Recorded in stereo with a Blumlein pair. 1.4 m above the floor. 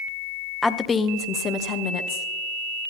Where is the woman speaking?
5° left, 0.7 m; by 2.9 s 45° left, 1.7 m.